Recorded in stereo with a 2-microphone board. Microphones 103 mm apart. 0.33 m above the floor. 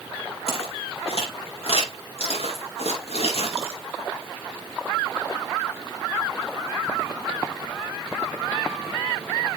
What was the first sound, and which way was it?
Footsteps, 80° left.